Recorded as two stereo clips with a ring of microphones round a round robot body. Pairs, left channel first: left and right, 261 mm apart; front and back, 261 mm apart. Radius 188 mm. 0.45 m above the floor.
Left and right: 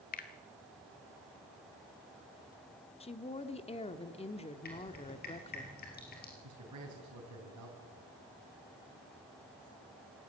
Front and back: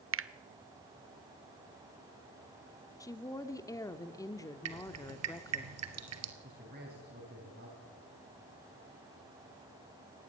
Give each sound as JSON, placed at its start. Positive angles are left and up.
{"t": 0.1, "sound": "a finger snap", "azimuth_deg": 150, "distance_m": 1.0}
{"t": 3.0, "sound": "a woman speaking", "azimuth_deg": 60, "distance_m": 1.2}
{"t": 4.7, "sound": "dripping", "azimuth_deg": 155, "distance_m": 1.9}
{"t": 6.4, "sound": "a man speaking", "azimuth_deg": -115, "distance_m": 4.5}